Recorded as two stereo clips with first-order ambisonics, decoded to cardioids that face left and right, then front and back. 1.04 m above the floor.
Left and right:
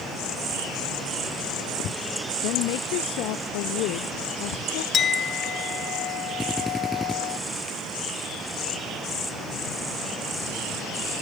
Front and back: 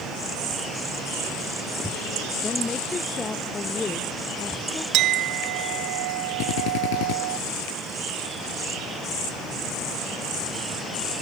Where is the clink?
150° left.